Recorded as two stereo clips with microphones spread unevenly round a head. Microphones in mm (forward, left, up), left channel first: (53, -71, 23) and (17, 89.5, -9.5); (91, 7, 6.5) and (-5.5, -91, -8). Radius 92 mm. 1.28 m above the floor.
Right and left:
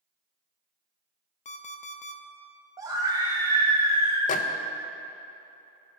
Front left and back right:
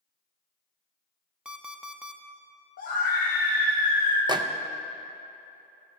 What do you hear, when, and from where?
1.4 s an alarm clock: 50° right, 0.8 m
2.8 s a scream: 45° left, 0.9 m
4.3 s a microwave: 80° right, 0.5 m